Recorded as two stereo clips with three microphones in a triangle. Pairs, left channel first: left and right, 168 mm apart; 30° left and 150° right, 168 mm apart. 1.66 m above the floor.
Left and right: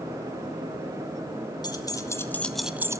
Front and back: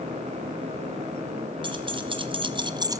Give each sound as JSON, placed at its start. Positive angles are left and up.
{"t": 1.6, "sound": "keys jangling", "azimuth_deg": 155, "distance_m": 1.5}